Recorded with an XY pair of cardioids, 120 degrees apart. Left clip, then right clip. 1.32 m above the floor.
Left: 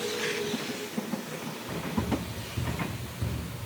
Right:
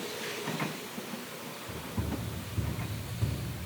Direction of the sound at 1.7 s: 20° left.